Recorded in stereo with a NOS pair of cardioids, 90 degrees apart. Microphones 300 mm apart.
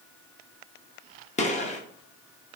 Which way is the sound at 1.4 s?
25° left.